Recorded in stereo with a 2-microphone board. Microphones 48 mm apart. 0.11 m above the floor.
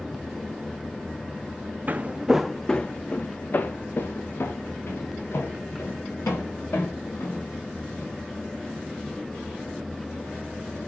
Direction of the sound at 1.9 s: 40° right (ahead or behind).